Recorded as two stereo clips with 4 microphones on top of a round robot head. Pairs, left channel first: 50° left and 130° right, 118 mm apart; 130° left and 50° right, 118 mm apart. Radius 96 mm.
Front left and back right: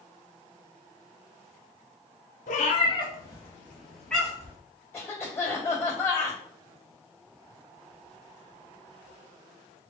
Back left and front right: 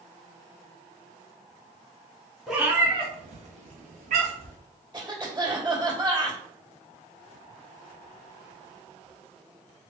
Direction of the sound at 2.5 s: 40° left.